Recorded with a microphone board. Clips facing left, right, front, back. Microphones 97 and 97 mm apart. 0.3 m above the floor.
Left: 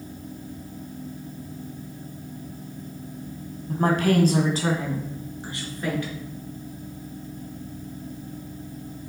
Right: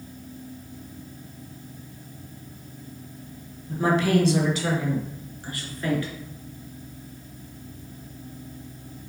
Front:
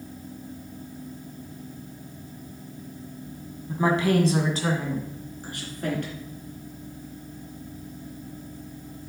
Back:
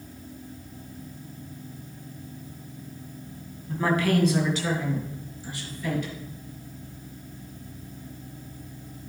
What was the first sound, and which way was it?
A woman speaking, 75° left.